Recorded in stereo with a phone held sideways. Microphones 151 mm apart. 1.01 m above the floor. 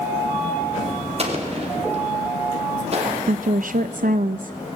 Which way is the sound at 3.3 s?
70° right (ahead or behind).